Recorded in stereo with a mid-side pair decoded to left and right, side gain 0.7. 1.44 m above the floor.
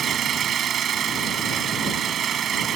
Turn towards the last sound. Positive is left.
turn(degrees=-40)